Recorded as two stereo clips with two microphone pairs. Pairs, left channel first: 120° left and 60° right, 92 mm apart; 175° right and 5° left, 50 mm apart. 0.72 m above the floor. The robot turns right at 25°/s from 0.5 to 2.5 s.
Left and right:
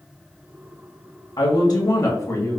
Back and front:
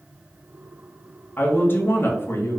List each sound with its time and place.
1.4 s a woman speaking: 145° left, 0.9 m; by 2.6 s 175° left, 0.9 m